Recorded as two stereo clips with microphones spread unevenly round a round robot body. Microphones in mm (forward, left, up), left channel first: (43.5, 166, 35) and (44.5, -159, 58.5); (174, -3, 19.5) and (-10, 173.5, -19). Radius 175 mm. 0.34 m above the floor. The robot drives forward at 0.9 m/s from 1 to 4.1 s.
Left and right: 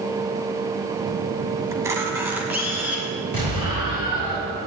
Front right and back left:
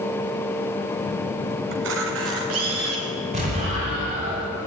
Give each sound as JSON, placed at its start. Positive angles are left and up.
{"t": 1.7, "sound": "a camera shutter", "azimuth_deg": -170, "distance_m": 1.1}
{"t": 3.3, "sound": "an explosion", "azimuth_deg": -160, "distance_m": 7.0}